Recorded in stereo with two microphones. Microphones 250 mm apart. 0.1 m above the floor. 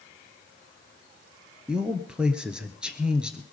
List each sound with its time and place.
1.7 s a man speaking: 5° right (ahead or behind), 1.3 m